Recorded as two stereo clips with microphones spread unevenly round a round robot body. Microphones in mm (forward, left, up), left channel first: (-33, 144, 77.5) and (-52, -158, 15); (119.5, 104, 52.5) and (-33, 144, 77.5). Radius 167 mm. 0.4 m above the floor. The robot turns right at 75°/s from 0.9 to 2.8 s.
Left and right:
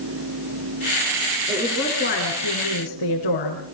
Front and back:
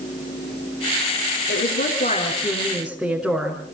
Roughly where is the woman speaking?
Ahead.